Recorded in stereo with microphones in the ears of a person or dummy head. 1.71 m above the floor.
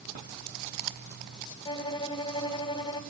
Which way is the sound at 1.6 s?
30° left (ahead or behind).